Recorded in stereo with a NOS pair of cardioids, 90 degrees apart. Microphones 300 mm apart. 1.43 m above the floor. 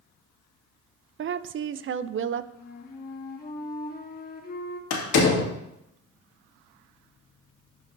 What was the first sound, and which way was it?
A woman speaking, 40° right.